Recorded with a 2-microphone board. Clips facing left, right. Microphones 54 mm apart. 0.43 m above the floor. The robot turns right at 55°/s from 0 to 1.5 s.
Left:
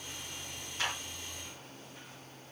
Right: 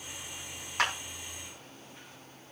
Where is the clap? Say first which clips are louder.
Right 6 dB; 70° right (ahead or behind), 3.5 m; by 0.9 s 60° right (ahead or behind), 3.5 m.